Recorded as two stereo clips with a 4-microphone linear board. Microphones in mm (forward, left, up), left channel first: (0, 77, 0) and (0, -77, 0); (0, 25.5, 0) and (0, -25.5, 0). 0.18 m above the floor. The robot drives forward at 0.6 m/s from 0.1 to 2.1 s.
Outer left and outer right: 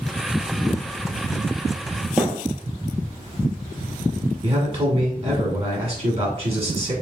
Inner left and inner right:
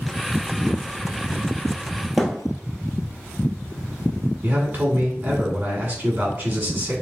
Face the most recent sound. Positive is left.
turn(degrees=-40)  # may be behind; listen again after turning